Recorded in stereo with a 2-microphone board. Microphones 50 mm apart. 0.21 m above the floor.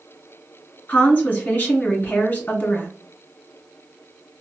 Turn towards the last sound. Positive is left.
turn(degrees=40)  # may be behind; listen again after turning